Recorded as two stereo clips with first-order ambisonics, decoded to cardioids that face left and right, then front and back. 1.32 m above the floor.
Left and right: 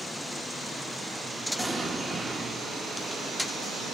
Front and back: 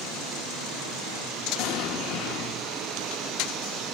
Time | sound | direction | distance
1.6 | an explosion | 15° right | 1.2 m